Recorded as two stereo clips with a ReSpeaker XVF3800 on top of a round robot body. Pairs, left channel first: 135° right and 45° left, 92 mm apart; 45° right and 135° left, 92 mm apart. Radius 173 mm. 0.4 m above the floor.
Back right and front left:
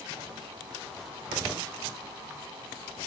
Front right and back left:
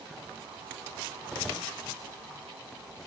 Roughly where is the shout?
No shout in this recording.